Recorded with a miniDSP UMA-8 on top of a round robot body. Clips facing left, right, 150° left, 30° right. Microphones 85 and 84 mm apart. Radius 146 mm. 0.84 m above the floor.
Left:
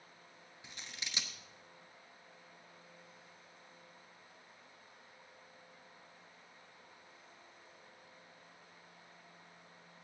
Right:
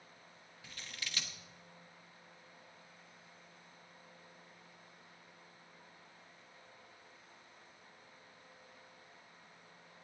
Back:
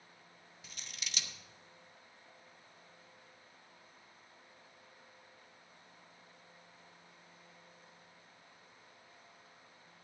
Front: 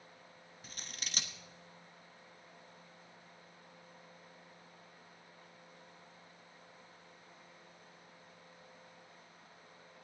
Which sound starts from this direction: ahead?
Scissors, at 0.6 s.